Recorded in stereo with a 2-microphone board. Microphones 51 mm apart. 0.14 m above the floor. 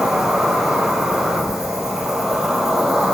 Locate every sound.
0.0 s an insect: 10° right (ahead or behind), 0.8 m